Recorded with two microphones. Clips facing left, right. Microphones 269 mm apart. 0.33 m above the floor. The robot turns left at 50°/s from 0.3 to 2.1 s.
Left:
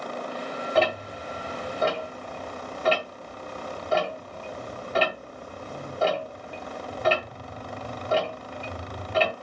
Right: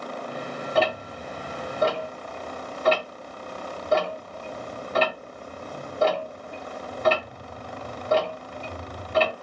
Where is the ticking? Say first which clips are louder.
Even; centre (ahead or behind), 2 m; by 9.3 s 45° right (ahead or behind), 2 m.